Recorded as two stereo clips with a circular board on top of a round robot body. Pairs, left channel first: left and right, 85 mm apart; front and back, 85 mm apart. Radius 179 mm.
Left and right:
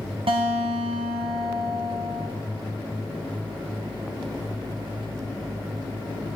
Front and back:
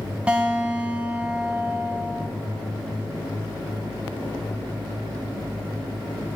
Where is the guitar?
100° right, 0.6 m.